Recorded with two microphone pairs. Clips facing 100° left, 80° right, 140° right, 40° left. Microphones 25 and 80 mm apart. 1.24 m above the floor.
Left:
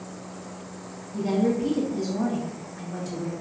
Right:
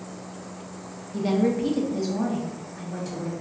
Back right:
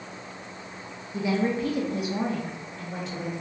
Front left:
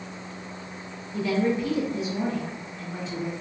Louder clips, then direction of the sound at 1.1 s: Right 1 dB, front left 1 dB; 60° right.